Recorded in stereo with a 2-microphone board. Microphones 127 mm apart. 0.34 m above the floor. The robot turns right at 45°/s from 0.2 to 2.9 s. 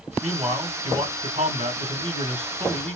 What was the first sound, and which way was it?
A man speaking, 175° right.